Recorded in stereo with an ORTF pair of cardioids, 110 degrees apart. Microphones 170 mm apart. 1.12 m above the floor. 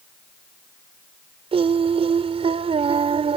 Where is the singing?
40° right.